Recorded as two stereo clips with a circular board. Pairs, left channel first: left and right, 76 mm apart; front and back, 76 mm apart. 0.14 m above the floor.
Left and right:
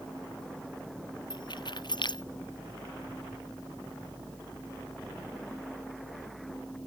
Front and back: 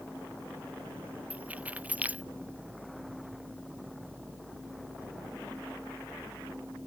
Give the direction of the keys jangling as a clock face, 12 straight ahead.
8 o'clock.